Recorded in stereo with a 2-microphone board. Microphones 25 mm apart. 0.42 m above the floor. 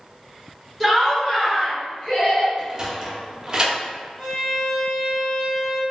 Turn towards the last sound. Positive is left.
turn(degrees=0)  # may be behind; listen again after turning